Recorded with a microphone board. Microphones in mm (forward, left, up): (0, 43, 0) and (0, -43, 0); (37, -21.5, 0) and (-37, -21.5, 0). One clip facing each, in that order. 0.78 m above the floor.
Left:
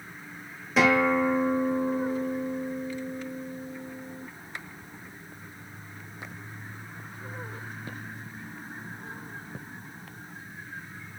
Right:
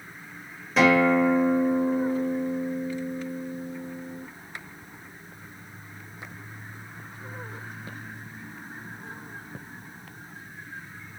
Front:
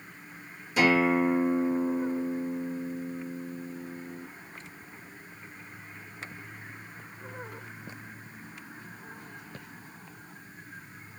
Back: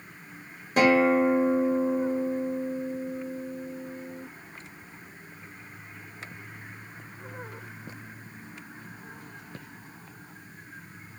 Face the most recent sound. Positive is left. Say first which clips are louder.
# right 3 dB, back 3 dB
turn(degrees=175)